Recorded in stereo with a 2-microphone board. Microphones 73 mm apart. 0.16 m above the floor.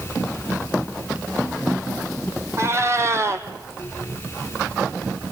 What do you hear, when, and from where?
2.6 s a cat meowing: 40° right (ahead or behind), 1.2 m